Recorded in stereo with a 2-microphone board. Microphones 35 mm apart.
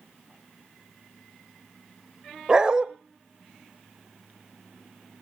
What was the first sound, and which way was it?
A dog barking, 25° right (ahead or behind).